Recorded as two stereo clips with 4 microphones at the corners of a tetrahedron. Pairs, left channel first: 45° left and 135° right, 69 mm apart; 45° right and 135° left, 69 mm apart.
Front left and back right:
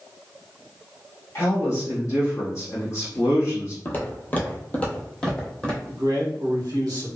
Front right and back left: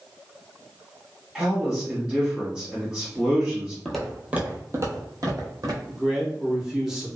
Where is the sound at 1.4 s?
65° left, 1.6 m.